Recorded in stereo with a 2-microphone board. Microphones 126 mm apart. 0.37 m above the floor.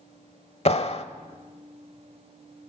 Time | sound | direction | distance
0.7 | a clap | 50° left (ahead or behind) | 1.0 m